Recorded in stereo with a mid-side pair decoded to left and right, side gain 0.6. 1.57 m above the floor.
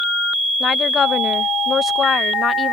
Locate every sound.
0.6 s a woman speaking: 35° left